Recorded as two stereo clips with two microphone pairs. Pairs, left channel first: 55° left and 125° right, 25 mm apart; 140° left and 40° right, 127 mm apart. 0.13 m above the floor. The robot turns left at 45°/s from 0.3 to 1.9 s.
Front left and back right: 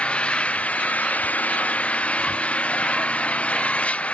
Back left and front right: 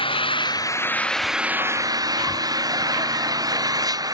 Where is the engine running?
95° left; by 4.1 s 20° left.